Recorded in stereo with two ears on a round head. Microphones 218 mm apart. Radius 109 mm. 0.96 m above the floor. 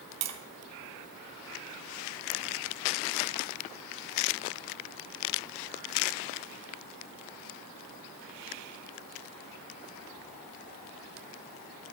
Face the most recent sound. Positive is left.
turn(degrees=-75)  # may be behind; listen again after turning